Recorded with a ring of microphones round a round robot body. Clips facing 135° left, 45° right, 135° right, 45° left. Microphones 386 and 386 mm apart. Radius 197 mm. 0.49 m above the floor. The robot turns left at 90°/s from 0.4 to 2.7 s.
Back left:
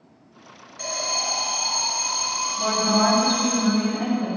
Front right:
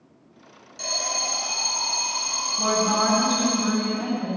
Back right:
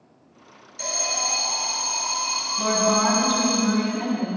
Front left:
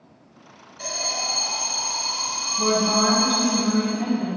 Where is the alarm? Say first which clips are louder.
Back left 2 dB, back right 1 dB; 95° right, 3.5 m; by 3.6 s 90° left, 3.5 m.